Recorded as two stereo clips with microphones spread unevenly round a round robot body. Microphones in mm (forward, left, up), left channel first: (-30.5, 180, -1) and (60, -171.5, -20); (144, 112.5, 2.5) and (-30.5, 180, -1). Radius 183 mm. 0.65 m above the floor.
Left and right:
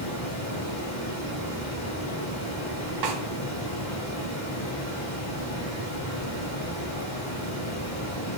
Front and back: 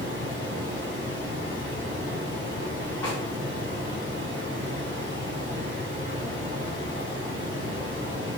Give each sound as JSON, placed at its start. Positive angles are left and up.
{"t": 0.0, "sound": "running water", "azimuth_deg": 160, "distance_m": 1.2}
{"t": 3.0, "sound": "a snare drum", "azimuth_deg": -95, "distance_m": 0.7}